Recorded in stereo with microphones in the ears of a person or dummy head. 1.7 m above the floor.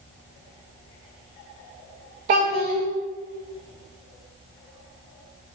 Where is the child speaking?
30° right (ahead or behind), 0.5 m.